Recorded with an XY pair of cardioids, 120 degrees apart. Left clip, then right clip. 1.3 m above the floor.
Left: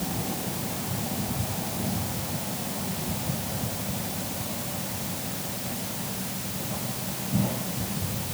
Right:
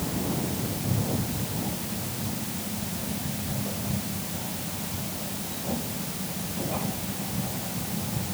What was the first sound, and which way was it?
Only background noise.